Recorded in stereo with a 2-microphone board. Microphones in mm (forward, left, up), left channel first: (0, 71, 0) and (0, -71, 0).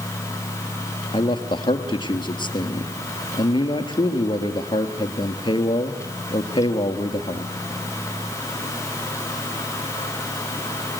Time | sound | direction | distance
1.1 | a man speaking | 35° left (ahead or behind) | 2 m